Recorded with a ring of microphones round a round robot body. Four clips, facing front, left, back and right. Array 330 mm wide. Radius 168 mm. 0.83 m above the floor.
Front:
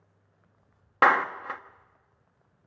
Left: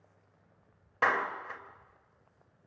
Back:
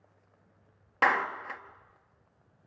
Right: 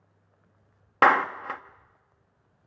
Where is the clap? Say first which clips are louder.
Right 9 dB, front 5 dB; 70° right, 0.9 m.